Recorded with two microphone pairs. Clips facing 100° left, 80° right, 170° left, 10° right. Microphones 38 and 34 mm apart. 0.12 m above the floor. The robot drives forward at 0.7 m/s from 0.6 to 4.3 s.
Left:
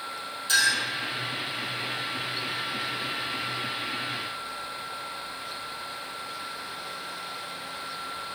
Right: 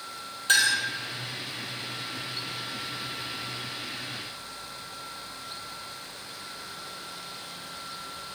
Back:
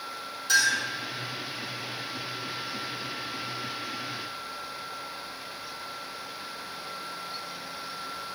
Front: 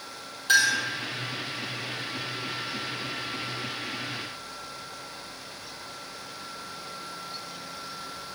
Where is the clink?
45° right, 2 m.